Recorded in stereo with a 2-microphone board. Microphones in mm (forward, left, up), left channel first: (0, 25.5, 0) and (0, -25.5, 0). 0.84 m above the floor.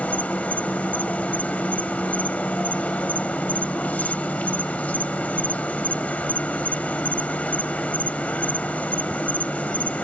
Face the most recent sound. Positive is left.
turn(degrees=30)  # may be behind; listen again after turning